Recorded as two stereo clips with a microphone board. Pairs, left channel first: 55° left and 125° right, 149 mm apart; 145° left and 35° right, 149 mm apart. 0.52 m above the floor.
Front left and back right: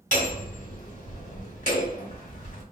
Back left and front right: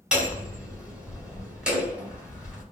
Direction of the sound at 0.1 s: 50° left.